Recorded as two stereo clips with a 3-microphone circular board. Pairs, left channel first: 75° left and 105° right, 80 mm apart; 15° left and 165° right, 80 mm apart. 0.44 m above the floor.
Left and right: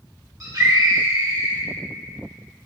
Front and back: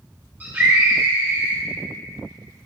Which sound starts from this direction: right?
A scream, at 0.4 s.